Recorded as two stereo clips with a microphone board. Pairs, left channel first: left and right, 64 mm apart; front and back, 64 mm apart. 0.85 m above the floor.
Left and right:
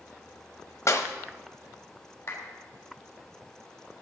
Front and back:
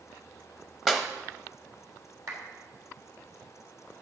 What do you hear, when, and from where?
0.9 s a clap: 95° left, 0.9 m
2.3 s a clap: 145° left, 3 m